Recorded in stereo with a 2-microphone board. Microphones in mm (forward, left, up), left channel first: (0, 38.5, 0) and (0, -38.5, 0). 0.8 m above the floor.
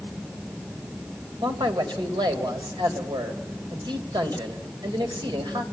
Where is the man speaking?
75° right (ahead or behind), 3 m.